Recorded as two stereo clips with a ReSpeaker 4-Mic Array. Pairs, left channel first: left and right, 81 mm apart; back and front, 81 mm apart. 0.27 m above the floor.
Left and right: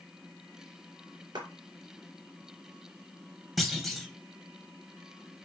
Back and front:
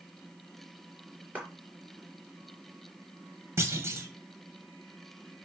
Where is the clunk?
Straight ahead, 1.5 m.